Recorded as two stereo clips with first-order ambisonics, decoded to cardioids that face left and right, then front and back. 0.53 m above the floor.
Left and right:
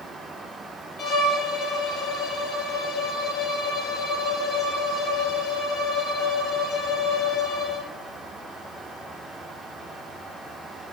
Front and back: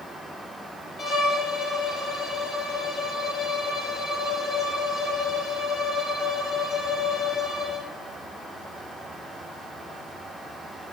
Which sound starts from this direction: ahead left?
A violin, at 1.0 s.